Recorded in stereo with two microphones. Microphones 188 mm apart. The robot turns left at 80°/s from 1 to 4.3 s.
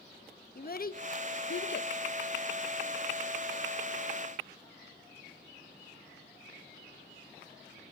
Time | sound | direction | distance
0.6 | a child speaking | 50° left (ahead or behind) | 0.6 m